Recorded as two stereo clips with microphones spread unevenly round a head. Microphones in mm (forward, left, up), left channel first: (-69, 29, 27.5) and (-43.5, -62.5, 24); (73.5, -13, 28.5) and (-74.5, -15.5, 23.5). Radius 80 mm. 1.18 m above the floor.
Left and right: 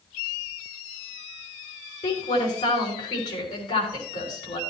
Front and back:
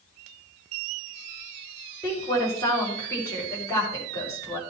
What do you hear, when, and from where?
2.0 s a woman speaking: 75° left, 5 m